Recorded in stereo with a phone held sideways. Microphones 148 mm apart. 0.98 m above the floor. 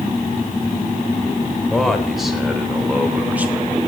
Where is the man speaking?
Centre (ahead or behind), 3.5 m; by 3.9 s 15° right (ahead or behind), 2 m.